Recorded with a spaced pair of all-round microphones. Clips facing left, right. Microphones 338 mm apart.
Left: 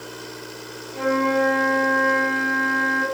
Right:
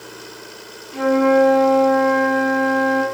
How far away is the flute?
About 1.1 m.